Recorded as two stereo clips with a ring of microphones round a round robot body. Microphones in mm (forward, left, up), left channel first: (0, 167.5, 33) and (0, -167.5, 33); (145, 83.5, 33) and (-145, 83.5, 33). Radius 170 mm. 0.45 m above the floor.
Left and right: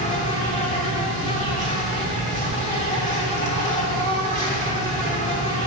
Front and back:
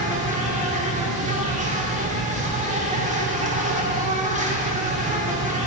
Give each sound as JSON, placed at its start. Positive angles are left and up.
{"t": 0.0, "sound": "an insect", "azimuth_deg": 140, "distance_m": 1.2}